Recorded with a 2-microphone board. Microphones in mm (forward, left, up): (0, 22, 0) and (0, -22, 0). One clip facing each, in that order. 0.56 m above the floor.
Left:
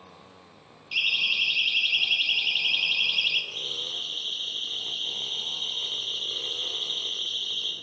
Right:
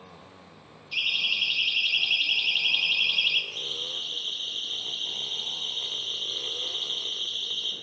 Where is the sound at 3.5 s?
80° left, 9.5 m; by 7.7 s 75° left (ahead or behind), 5 m.